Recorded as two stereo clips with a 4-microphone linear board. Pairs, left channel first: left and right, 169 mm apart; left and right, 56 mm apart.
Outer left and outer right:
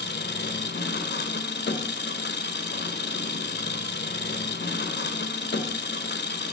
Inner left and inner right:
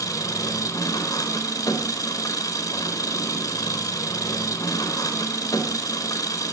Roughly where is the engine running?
Left.